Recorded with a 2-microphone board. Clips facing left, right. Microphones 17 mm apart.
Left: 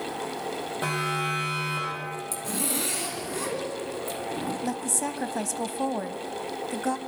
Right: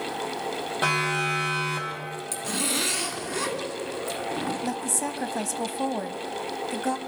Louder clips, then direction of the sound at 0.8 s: Right 4 dB; 35° right (ahead or behind).